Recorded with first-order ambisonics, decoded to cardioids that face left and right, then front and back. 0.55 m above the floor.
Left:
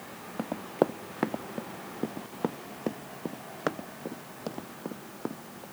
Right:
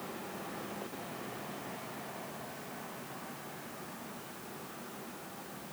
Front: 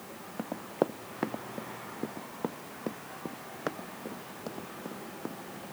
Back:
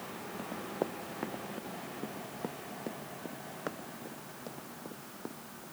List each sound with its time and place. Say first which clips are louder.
0.4 s running footsteps: left 13 dB, front 6 dB; 65° left; by 5.6 s 75° left